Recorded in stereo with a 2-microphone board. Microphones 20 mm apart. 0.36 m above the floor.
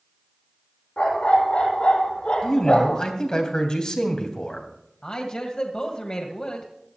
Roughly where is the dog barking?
Left.